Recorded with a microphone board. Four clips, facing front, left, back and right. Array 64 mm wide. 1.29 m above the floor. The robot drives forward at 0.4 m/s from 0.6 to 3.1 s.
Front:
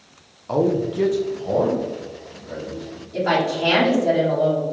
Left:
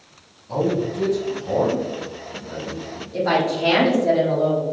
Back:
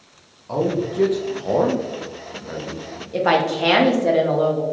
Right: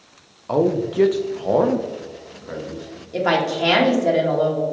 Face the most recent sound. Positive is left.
turn(degrees=-150)